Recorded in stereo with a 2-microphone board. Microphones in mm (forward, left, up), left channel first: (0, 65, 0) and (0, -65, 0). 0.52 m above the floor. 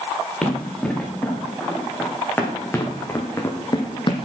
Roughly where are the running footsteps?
Centre.